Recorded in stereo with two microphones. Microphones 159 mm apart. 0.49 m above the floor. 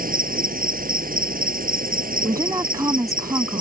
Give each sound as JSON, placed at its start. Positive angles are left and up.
{"t": 0.0, "sound": "an insect", "side_deg": -60}
{"t": 2.2, "sound": "a woman speaking", "side_deg": -20}